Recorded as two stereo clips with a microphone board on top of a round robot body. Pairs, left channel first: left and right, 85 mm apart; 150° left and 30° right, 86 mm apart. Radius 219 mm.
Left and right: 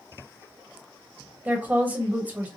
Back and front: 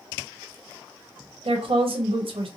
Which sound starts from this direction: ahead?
A woman speaking, at 1.4 s.